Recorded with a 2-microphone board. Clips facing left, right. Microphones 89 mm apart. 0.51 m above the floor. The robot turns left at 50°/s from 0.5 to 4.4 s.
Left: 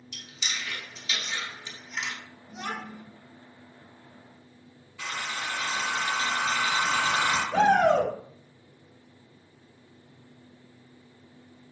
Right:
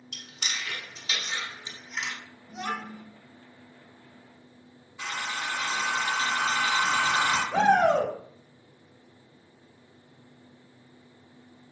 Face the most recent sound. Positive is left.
turn(degrees=-10)  # may be behind; listen again after turning